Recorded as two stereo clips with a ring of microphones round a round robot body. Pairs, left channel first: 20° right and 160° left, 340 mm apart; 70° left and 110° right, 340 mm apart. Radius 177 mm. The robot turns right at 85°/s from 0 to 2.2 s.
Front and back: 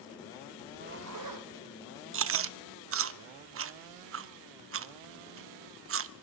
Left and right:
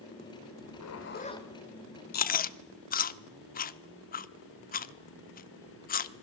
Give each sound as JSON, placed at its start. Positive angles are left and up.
{"t": 0.6, "sound": "a zipper", "azimuth_deg": 80, "distance_m": 2.0}
{"t": 2.1, "sound": "chewing", "azimuth_deg": 120, "distance_m": 0.7}